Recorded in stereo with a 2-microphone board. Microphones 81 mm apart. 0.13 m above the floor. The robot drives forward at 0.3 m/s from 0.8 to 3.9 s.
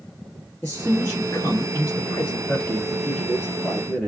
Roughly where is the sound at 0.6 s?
Left.